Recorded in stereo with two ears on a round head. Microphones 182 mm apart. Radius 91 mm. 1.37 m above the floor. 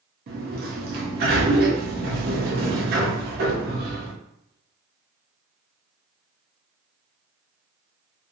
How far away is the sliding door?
About 0.6 m.